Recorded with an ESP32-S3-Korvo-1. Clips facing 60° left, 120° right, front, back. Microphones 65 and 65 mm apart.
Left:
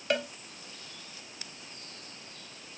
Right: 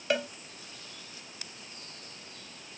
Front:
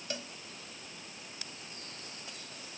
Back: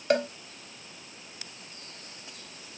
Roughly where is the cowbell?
Behind left.